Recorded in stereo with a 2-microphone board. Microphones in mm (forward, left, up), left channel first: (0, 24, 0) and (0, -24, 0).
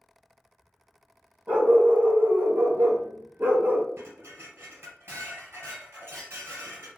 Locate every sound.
1.5 s a dog barking: 30° right (ahead or behind), 1.0 m; by 3.9 s 40° right (ahead or behind), 0.7 m
4.0 s dishes clattering: 55° right (ahead or behind), 1.5 m